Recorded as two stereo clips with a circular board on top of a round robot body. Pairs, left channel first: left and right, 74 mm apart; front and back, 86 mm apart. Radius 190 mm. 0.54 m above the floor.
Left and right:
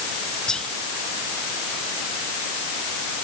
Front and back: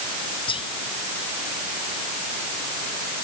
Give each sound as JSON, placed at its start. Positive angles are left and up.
{"t": 0.5, "sound": "whispering", "azimuth_deg": 10}